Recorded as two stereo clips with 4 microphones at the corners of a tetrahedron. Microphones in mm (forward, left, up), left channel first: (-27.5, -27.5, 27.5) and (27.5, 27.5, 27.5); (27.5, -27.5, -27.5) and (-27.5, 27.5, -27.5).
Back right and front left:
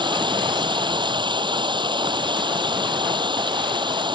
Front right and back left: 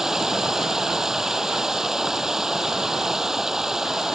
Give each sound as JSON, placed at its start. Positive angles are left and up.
{"t": 0.0, "sound": "running water", "azimuth_deg": 50}